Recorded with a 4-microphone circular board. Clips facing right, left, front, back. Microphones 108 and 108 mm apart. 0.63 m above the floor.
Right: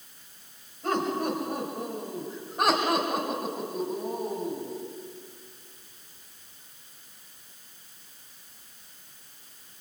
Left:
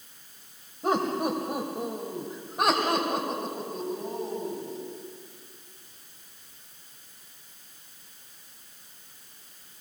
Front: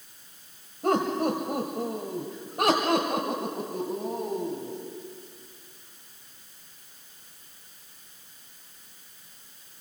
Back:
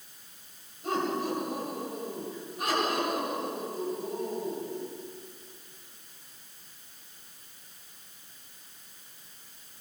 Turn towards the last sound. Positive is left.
turn(degrees=-15)